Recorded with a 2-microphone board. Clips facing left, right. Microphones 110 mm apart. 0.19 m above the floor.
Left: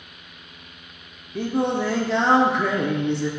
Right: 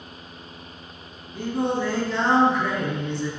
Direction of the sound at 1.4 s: 75° left (ahead or behind).